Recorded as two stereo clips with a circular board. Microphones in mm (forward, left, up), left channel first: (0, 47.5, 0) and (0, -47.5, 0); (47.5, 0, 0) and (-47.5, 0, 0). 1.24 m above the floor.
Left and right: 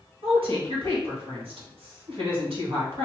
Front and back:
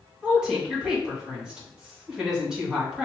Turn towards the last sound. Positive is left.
turn(degrees=-100)